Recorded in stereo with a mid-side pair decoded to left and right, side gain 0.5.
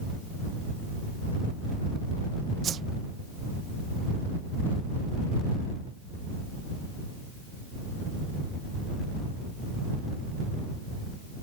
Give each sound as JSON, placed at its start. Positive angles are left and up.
{"t": 2.6, "sound": "a whoosh", "azimuth_deg": -55}